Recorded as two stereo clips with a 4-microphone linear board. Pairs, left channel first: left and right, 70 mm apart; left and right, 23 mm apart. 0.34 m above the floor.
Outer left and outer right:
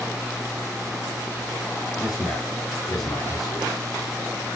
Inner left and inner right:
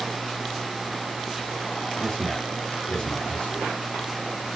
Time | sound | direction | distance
2.0 | a man speaking | 65° left (ahead or behind) | 3 m